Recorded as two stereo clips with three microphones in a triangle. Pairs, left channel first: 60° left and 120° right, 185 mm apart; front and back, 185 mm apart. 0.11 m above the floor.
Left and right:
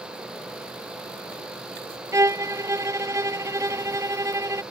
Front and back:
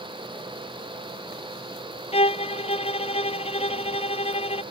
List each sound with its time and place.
2.1 s a violin: 45° right